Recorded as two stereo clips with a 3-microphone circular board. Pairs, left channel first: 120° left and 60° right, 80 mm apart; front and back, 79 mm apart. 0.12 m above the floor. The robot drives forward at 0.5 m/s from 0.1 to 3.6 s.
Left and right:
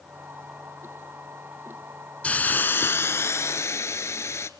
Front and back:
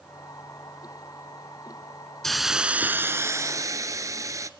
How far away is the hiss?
About 0.6 m.